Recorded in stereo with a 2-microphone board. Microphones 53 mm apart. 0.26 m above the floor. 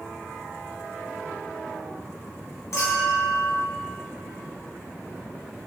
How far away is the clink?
About 1.5 m.